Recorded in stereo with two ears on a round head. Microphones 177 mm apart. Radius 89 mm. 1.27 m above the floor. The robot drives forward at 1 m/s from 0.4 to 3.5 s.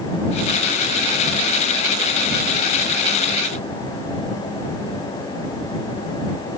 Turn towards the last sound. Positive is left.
No sound to turn to.